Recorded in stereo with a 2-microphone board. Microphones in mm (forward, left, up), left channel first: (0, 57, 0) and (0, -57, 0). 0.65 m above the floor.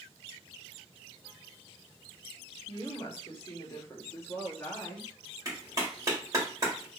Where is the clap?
30° right (ahead or behind), 1.6 m.